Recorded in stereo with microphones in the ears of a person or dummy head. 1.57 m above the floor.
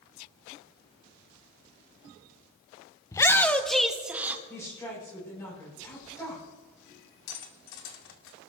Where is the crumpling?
I don't hear crumpling.